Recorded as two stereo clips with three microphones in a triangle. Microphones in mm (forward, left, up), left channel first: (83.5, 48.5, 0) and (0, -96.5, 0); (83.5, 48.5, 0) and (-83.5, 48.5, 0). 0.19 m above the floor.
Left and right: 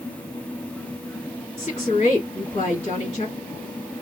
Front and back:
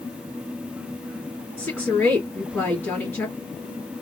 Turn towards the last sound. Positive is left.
turn(degrees=70)